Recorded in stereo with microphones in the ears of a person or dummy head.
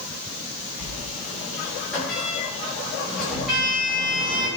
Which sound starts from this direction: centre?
A sliding door, at 0.8 s.